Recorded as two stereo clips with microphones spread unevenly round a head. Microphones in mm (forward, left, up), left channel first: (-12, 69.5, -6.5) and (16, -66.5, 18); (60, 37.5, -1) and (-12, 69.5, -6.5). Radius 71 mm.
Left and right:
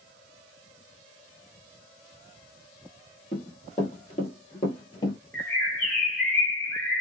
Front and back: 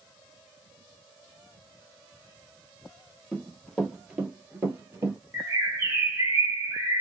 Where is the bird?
170° right, 1.1 m.